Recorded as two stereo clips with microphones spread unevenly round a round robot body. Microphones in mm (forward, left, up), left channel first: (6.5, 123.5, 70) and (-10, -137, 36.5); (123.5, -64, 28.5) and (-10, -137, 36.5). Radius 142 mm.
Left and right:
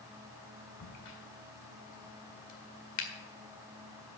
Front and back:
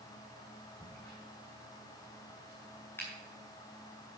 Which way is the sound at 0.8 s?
110° left.